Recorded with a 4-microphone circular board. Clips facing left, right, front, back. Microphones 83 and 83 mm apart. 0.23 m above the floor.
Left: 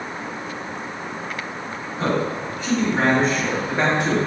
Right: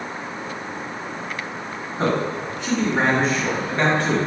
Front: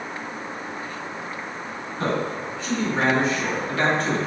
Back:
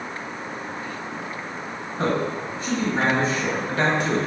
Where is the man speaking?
140° right, 1.9 m; by 4.2 s 115° left, 1.3 m.